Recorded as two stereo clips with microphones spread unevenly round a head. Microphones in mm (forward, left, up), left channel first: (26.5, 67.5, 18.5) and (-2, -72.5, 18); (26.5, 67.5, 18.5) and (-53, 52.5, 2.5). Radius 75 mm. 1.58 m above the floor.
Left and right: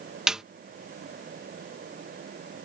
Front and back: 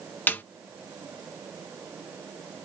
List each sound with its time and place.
0.3 s a snare drum: 20° right